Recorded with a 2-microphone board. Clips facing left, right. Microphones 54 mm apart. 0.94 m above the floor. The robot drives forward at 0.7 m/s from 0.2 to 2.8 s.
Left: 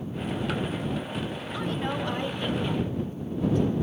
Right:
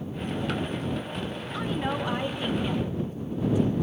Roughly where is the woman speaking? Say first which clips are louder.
Right 1 dB; centre.